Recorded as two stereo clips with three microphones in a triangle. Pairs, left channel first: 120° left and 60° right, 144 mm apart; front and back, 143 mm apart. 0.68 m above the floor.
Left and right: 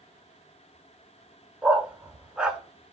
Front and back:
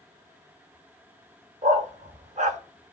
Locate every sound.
1.6 s a dog barking: 140° right, 0.8 m